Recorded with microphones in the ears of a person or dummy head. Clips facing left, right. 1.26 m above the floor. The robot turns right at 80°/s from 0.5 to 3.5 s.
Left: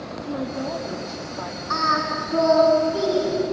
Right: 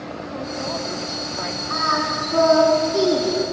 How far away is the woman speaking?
About 2.5 m.